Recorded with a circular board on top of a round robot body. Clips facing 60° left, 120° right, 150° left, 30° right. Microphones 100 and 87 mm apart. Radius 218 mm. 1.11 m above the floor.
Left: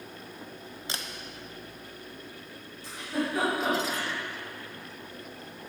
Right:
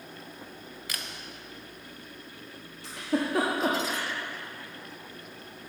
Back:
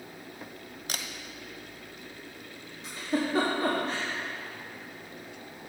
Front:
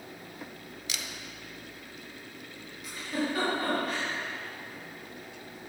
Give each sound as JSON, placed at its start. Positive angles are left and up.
{"t": 0.9, "sound": "a camera shutter", "azimuth_deg": 120, "distance_m": 0.9}
{"t": 2.8, "sound": "a giggle", "azimuth_deg": -150, "distance_m": 1.2}